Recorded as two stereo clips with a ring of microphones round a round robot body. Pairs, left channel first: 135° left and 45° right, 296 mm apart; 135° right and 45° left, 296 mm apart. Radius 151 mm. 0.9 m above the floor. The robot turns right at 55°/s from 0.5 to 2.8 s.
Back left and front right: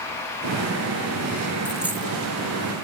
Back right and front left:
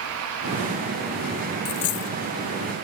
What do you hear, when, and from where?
1.6 s a dropped coin: 140° right; by 2.1 s 115° right